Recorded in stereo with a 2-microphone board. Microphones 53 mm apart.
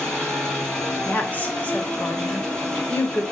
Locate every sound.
0.0 s an engine running: 10° left (ahead or behind), 6 m
1.1 s a woman speaking: 35° left (ahead or behind), 3 m